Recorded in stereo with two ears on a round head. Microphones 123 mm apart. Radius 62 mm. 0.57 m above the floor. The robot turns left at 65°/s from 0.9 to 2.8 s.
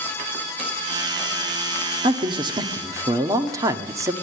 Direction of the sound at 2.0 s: 90° right.